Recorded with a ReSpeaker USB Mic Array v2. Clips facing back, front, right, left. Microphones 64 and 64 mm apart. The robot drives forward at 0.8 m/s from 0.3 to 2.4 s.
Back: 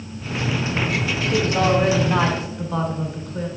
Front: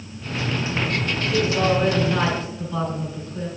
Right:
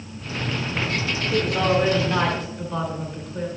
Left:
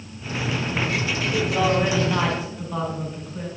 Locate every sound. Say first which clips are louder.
1.3 s a man speaking: back 1 dB, right 1 dB; 175° left, 1.3 m; by 3.6 s straight behind, 2 m